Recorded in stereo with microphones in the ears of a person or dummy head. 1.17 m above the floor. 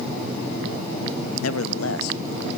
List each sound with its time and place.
1.4 s a man speaking: 85° left, 1.0 m